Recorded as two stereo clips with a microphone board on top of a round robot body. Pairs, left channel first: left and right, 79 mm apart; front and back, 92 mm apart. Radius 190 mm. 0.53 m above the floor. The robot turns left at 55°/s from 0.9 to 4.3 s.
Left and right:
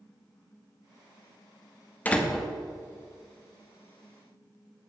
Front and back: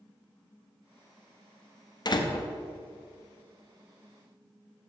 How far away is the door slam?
About 1.1 m.